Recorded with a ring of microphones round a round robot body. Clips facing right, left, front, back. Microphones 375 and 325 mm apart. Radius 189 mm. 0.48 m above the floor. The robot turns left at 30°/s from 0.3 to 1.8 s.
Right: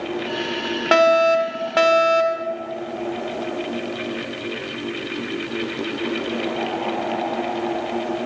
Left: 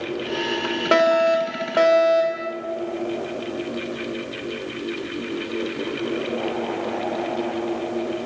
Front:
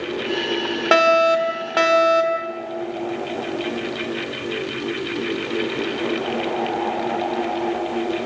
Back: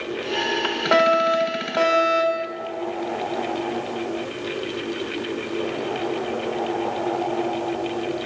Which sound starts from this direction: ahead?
A fire alarm, at 0.9 s.